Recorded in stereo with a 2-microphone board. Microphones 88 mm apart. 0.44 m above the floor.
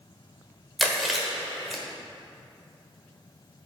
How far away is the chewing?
About 1.3 m.